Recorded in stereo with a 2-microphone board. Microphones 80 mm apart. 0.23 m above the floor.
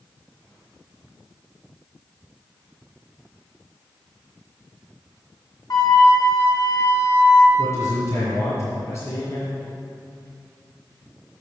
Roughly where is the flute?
Left.